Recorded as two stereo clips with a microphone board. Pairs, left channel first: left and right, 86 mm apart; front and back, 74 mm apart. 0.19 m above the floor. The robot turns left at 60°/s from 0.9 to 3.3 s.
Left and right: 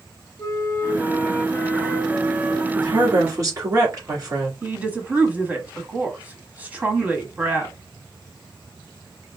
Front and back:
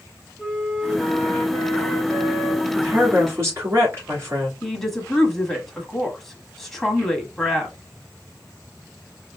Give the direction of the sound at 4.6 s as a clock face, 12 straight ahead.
3 o'clock.